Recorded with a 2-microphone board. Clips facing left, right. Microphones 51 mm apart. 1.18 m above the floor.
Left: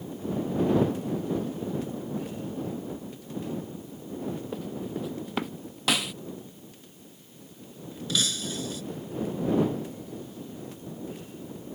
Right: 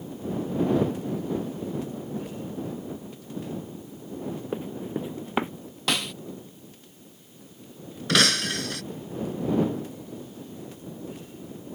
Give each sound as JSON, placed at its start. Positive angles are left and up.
{"t": 4.5, "sound": "running footsteps", "side_deg": -25}
{"t": 5.9, "sound": "a snare drum", "side_deg": 5}
{"t": 8.1, "sound": "breaking glass", "side_deg": -65}